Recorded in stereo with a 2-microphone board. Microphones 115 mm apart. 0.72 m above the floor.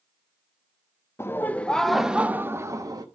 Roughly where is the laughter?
Left.